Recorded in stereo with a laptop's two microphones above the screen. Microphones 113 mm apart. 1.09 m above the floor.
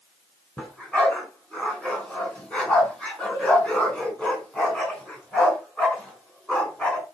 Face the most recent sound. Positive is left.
turn(degrees=10)  # may be behind; listen again after turning